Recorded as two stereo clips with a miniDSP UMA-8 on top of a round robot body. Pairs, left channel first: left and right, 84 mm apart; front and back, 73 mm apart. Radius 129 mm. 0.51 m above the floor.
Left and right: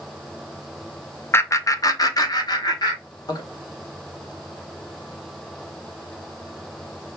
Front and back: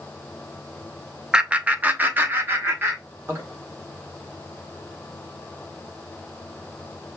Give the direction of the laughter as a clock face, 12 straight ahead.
8 o'clock.